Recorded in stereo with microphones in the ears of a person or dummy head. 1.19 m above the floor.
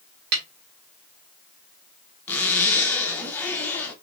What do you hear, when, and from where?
0.3 s a snare drum: 50° right (ahead or behind), 1.0 m
2.3 s a zipper: 15° left (ahead or behind), 0.7 m